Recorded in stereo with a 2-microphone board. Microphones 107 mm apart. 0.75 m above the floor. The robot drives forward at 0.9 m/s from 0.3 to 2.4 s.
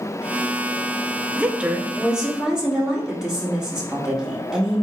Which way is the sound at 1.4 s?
15° right (ahead or behind).